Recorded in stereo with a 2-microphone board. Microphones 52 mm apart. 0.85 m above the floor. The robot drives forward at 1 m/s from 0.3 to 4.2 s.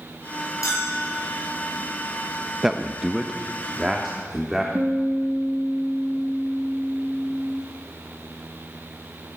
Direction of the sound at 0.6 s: 75° left (ahead or behind).